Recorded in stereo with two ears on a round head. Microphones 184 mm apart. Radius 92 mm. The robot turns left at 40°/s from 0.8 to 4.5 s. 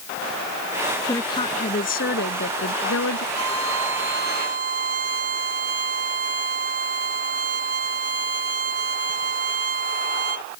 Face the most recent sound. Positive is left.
turn(degrees=-135)